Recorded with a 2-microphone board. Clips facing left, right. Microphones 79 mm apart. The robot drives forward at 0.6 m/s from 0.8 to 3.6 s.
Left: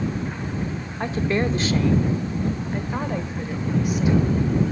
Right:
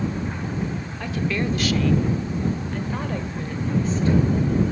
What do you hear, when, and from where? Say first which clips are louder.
1.0 s a woman speaking: left 3 dB; 30° left (ahead or behind), 0.8 m; by 4.2 s 15° left (ahead or behind), 1.7 m